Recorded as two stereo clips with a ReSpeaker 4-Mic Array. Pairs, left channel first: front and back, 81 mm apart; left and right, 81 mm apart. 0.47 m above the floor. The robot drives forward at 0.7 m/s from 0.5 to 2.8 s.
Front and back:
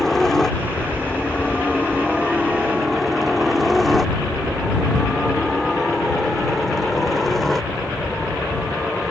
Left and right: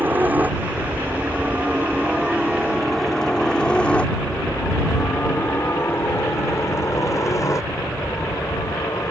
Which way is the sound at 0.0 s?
80° right.